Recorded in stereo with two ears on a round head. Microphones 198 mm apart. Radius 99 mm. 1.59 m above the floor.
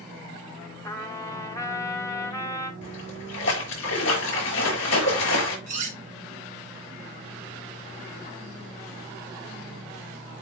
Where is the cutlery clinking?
35° right (ahead or behind), 2.5 m.